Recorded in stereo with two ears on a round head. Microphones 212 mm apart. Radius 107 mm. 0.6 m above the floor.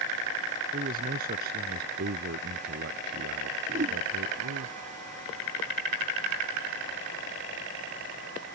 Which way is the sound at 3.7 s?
35° right (ahead or behind).